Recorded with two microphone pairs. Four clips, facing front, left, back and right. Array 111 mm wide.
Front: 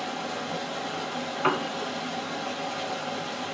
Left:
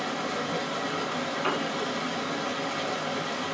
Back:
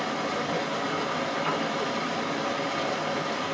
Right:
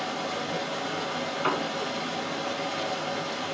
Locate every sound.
0.0 s running water: 175° left, 1.6 m
1.4 s a piano: 15° right, 0.6 m